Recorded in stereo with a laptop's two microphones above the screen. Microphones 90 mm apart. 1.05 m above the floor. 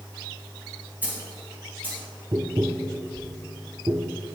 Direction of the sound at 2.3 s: 40° right (ahead or behind).